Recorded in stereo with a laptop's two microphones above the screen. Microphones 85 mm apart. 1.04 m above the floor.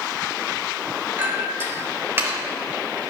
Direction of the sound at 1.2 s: 30° right (ahead or behind).